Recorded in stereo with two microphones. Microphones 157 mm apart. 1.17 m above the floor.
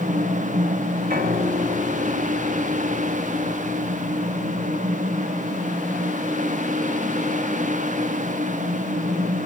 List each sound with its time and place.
1.1 s a piano: 70° right (ahead or behind), 2 m